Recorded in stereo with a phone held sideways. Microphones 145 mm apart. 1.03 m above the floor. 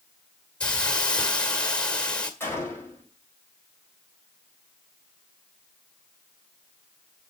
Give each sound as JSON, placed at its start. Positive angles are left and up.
{"t": 0.6, "sound": "a hiss", "side_deg": 5, "distance_m": 1.9}
{"t": 2.4, "sound": "a gunshot", "side_deg": 15, "distance_m": 5.0}